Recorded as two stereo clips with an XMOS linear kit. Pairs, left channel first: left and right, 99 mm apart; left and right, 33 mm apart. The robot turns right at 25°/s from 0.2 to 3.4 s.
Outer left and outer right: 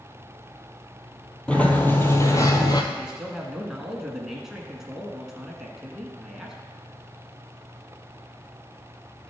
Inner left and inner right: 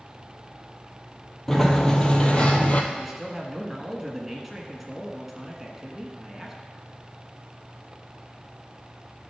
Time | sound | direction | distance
1.5 | a sliding door | 10° left | 1.1 m
2.9 | a man speaking | 10° right (ahead or behind) | 1.4 m